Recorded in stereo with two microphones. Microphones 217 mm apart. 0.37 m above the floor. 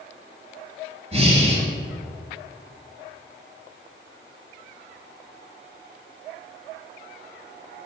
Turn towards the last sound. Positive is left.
turn(degrees=-30)  # may be behind; listen again after turning